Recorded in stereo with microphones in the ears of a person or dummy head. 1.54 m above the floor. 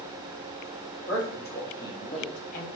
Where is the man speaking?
5° left (ahead or behind), 1.4 m; by 2.7 s 50° left (ahead or behind), 0.9 m.